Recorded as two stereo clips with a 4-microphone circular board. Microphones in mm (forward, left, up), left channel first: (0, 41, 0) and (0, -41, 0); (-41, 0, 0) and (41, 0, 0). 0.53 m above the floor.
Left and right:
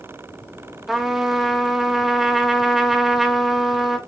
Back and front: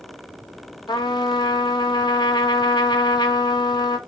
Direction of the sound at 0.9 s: 175° right.